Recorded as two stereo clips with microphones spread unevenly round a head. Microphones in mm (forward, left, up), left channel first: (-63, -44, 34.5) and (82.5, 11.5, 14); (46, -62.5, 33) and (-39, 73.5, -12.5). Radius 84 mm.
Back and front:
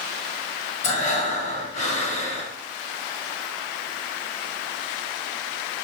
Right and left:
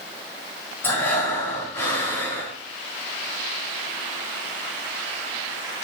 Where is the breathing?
125° right, 2.5 m.